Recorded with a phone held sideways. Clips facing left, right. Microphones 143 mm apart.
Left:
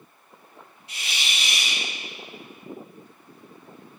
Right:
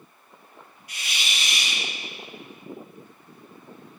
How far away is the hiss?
About 2 m.